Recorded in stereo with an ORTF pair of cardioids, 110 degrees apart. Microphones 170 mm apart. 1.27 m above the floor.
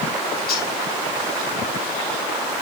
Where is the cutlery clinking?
60° left, 4 m.